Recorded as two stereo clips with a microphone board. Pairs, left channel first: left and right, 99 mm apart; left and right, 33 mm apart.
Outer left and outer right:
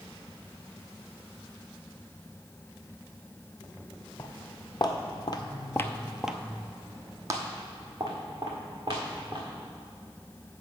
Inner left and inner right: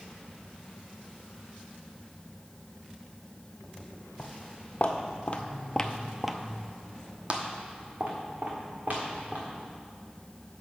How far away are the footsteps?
About 1.4 m.